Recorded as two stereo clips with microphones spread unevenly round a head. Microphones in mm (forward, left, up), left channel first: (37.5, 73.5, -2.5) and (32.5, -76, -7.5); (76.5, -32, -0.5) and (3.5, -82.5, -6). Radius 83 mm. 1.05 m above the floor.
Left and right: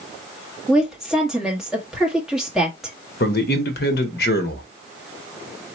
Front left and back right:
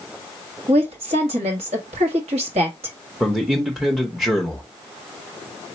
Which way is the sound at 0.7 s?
Straight behind.